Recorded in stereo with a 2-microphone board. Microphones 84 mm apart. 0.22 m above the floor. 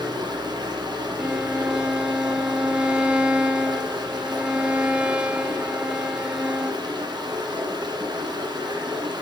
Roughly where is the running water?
Right.